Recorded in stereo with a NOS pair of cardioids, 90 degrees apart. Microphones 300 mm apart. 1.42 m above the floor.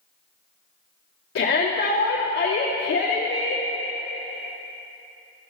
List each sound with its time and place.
1.4 s a shout: 45° left, 2.5 m